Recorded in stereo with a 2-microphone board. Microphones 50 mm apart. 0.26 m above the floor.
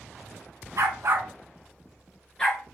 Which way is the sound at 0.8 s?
80° right.